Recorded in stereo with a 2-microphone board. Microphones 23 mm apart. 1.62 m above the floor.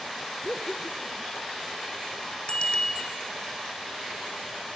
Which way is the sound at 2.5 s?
50° left (ahead or behind).